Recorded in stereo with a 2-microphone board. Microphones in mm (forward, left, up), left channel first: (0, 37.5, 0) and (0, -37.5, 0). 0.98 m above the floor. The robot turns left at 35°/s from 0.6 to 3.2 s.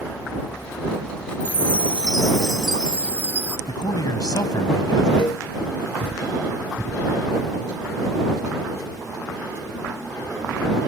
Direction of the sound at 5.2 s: 90° left.